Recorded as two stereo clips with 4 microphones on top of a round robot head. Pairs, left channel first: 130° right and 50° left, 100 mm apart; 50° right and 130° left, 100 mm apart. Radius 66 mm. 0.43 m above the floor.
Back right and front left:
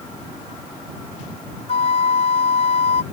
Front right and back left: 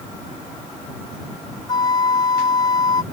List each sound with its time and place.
1.7 s a flute: 100° right